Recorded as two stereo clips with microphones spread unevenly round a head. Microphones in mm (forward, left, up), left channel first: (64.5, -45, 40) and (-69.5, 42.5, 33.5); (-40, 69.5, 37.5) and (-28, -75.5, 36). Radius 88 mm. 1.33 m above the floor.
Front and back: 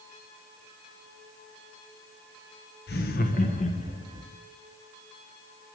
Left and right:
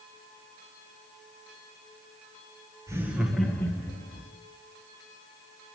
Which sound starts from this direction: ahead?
Laughter, at 2.9 s.